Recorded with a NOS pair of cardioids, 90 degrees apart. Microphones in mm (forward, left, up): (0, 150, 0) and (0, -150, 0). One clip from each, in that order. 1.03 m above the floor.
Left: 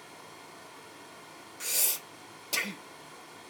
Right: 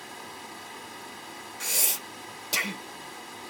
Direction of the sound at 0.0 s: 50° right.